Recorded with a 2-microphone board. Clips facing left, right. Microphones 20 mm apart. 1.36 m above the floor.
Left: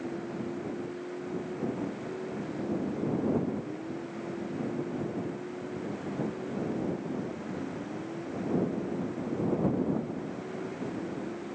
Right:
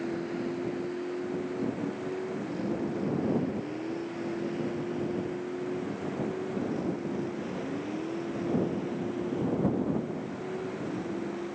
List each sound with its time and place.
0.0 s a vehicle: 40° right (ahead or behind); by 11.6 s 45° right (ahead or behind)